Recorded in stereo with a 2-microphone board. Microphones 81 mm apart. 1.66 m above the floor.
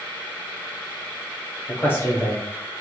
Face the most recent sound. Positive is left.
turn(degrees=25)  # may be behind; listen again after turning